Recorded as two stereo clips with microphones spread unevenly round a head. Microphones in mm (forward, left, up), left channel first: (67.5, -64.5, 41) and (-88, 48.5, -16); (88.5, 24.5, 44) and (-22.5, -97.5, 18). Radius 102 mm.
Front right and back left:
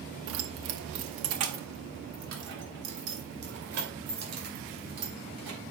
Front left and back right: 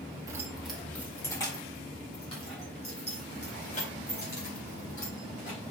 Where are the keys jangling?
150° left, 1.0 m; by 5.6 s 100° left, 5 m.